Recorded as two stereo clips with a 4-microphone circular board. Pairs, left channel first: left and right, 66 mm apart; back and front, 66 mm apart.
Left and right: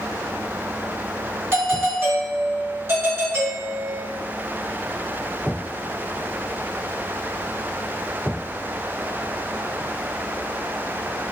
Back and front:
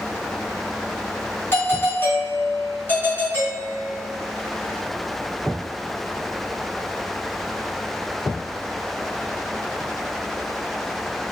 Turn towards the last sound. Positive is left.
turn(degrees=-130)